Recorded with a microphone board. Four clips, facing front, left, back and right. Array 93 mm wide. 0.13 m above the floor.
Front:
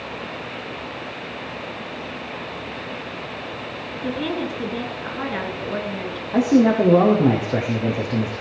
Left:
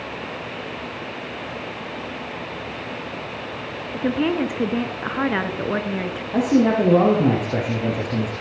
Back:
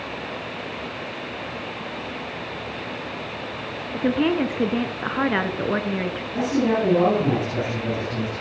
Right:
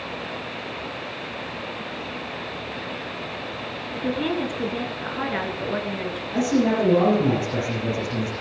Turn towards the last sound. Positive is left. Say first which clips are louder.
# left 3 dB, front 6 dB
turn(degrees=35)